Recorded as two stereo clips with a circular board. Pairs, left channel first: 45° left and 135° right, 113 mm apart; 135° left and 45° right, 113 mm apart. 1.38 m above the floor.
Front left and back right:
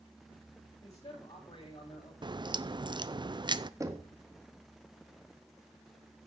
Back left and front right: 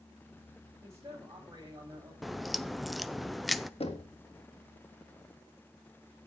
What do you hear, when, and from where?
0.8 s a man speaking: 20° left, 8.5 m; by 2.1 s 5° left, 9 m
2.2 s a crack: 135° right, 0.6 m
3.8 s knocking: 165° left, 1.8 m